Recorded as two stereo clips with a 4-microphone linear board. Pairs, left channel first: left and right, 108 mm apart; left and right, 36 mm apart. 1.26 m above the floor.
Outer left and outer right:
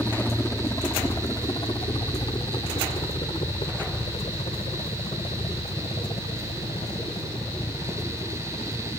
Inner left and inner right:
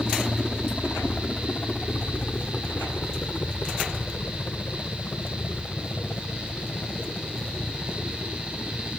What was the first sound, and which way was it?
A helicopter, 15° left (ahead or behind).